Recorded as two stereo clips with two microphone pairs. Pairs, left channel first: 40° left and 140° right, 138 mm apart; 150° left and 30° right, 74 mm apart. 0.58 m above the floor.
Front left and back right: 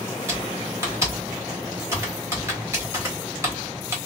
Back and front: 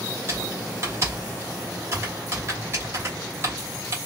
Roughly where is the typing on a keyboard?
Right.